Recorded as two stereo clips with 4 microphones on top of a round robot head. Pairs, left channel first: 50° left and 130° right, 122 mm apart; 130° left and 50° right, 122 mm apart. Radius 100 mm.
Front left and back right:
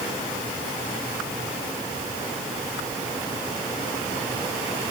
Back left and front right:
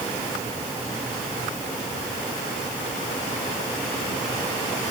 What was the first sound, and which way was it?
Only background noise.